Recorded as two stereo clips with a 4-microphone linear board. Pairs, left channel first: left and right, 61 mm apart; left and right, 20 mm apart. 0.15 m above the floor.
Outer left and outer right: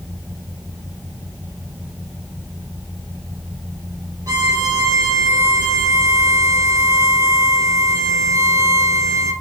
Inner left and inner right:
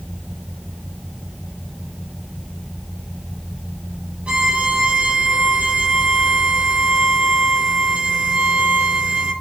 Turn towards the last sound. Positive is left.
turn(degrees=-70)  # may be behind; listen again after turning